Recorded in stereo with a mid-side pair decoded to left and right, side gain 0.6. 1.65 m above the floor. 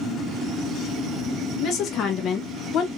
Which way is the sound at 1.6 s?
55° left.